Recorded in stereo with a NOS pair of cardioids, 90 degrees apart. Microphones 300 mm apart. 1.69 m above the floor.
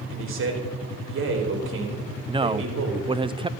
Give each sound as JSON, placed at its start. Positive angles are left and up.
{"t": 0.1, "sound": "a man speaking", "azimuth_deg": -45, "distance_m": 4.5}
{"t": 2.3, "sound": "a man speaking", "azimuth_deg": -20, "distance_m": 0.7}